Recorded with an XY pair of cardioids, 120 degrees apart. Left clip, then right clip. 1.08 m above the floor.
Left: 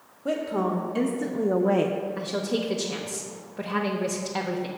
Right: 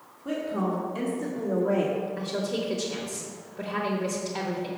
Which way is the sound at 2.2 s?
30° left.